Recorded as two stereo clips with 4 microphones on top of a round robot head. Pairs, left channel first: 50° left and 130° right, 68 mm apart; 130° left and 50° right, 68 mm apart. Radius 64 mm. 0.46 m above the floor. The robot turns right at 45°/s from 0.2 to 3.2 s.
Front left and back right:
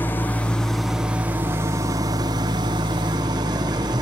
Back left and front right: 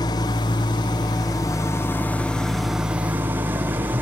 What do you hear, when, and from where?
0.0 s an engine running: 115° left, 1.7 m; by 4.0 s 110° right, 1.7 m